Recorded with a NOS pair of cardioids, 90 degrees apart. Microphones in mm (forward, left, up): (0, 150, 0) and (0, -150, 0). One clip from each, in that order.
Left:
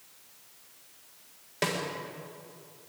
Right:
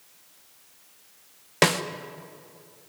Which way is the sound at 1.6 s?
65° right.